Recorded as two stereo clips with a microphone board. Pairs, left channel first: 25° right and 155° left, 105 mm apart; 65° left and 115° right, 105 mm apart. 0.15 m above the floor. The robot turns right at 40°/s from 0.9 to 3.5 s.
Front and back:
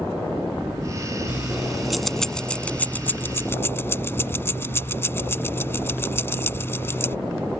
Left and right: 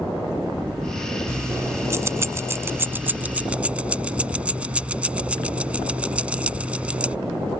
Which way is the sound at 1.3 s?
140° right.